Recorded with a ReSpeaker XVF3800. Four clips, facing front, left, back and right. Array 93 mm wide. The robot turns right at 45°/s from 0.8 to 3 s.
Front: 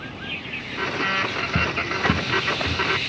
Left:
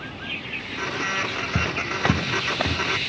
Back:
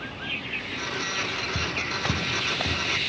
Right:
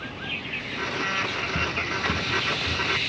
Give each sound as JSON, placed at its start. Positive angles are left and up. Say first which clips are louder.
{"t": 1.6, "sound": "footsteps", "louder": "left 3 dB, front 6 dB", "azimuth_deg": 55, "distance_m": 1.1}